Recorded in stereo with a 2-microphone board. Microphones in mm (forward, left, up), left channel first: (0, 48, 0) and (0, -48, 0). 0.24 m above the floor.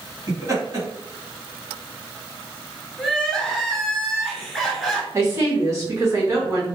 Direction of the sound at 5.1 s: 30° right (ahead or behind).